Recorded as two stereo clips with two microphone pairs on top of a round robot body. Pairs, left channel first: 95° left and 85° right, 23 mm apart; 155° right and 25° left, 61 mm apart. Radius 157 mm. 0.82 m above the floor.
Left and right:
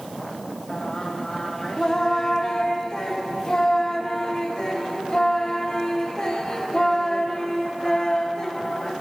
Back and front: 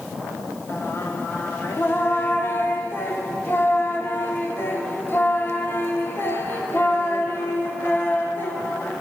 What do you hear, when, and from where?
0.7 s singing: 150° left, 1.0 m